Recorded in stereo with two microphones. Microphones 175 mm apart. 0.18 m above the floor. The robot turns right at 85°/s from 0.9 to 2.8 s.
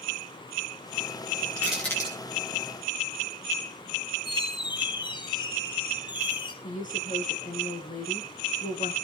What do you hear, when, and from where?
1.6 s crushing: 15° right (ahead or behind), 8.5 m; by 2.1 s 35° left (ahead or behind), 8.5 m
4.2 s a squeak: 25° left (ahead or behind), 1.7 m
6.6 s a woman speaking: 50° left (ahead or behind), 2.5 m